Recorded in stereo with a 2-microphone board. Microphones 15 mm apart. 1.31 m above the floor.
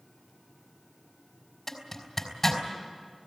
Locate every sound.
1.7 s a zipper: 25° left (ahead or behind), 4 m